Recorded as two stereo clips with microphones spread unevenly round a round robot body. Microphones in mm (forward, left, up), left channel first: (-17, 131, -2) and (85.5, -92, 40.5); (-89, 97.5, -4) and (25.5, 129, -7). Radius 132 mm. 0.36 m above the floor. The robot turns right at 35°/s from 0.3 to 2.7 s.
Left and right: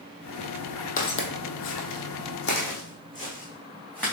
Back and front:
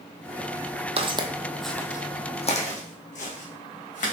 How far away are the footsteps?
About 0.9 m.